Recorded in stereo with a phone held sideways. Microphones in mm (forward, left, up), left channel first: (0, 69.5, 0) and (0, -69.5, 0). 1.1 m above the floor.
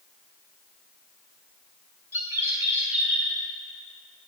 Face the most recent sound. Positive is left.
turn(degrees=-20)  # may be behind; listen again after turning